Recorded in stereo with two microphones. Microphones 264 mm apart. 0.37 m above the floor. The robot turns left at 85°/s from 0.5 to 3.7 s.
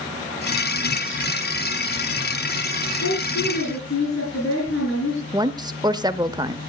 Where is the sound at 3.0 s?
110° left, 6.5 m; by 5.2 s 50° left, 6.5 m.